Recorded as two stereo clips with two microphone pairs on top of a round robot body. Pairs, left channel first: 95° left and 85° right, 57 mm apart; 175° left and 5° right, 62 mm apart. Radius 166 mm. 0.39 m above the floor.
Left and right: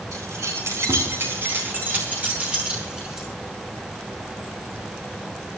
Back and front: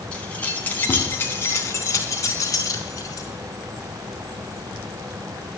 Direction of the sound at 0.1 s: 115° right.